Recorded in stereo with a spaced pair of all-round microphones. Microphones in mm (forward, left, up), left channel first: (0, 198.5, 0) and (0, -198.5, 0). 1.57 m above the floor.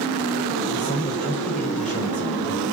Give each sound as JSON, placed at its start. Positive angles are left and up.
{"t": 0.7, "sound": "a man speaking", "side_deg": 20, "distance_m": 6.0}